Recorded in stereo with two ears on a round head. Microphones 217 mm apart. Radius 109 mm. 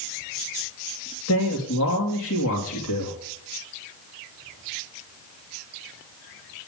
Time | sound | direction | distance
1.3 | a man speaking | 65° left (ahead or behind) | 3 m